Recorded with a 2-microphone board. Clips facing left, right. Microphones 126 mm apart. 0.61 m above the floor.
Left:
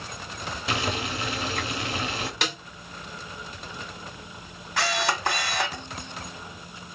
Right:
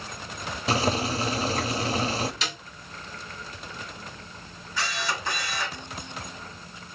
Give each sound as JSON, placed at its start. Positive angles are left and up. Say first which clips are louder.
{"t": 0.7, "sound": "boiling", "louder": "right 5 dB", "side_deg": -35, "distance_m": 0.7}
{"t": 2.4, "sound": "a snare drum", "louder": "left 4 dB", "side_deg": 60, "distance_m": 2.0}
{"t": 4.8, "sound": "a camera shutter", "louder": "left 5 dB", "side_deg": 65, "distance_m": 2.0}